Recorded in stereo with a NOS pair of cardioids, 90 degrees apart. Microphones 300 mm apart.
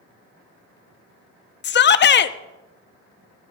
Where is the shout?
35° left, 0.6 m.